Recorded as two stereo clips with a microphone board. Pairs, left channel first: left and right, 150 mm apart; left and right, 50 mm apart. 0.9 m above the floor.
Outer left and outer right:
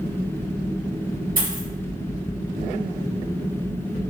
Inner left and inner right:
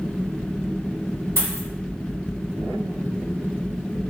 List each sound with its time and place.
1.4 s a dropped coin: 75° right (ahead or behind), 1.3 m